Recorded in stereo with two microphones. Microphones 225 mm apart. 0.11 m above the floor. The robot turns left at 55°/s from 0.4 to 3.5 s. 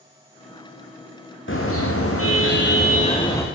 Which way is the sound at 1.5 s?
120° left.